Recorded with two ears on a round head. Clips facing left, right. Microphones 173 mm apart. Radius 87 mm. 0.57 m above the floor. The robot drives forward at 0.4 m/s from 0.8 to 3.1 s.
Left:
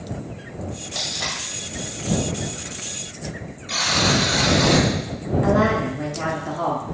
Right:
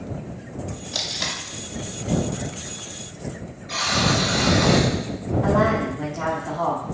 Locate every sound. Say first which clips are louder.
0.9 s tape being pulled: even; 40° right (ahead or behind), 0.7 m; by 1.4 s 35° right (ahead or behind), 0.8 m
3.7 s a buzzer: left 1 dB; 40° left (ahead or behind), 1.5 m
5.4 s a woman speaking: left 1 dB; 25° left (ahead or behind), 1.2 m